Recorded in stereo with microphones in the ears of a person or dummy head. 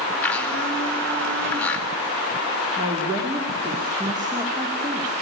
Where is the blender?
10° left (ahead or behind), 4 m.